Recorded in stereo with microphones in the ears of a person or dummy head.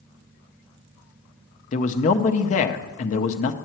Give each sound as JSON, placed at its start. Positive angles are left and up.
{"t": 1.7, "sound": "a man speaking", "side_deg": 40, "distance_m": 0.7}